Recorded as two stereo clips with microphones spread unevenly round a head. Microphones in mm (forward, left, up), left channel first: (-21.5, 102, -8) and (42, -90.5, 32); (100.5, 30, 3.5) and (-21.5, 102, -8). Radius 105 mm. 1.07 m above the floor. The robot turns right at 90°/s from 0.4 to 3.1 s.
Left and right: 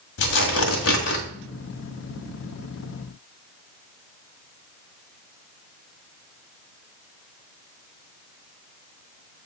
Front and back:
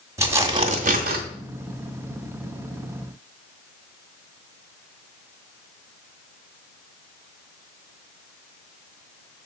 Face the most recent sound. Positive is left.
turn(degrees=-35)